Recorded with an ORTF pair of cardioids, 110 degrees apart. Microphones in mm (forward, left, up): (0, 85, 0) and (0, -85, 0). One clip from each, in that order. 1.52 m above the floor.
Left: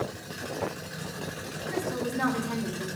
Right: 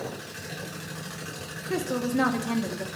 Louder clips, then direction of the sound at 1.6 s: Right 2 dB; 45° right.